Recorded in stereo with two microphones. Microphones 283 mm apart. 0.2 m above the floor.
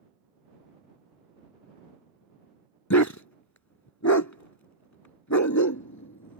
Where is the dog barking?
75° left (ahead or behind).